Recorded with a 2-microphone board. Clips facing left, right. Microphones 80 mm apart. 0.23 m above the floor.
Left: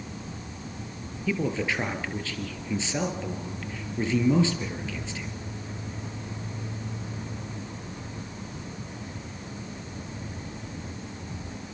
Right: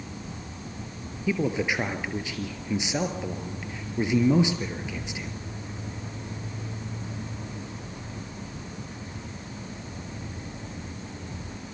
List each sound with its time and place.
1.3 s a man speaking: 15° right (ahead or behind), 4 m